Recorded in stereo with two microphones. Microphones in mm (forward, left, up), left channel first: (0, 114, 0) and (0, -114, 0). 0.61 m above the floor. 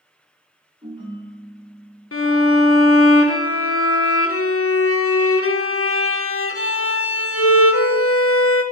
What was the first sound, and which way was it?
A ringtone, 25° right (ahead or behind).